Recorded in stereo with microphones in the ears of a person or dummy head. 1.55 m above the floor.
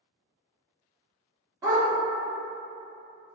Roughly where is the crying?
No crying in this recording.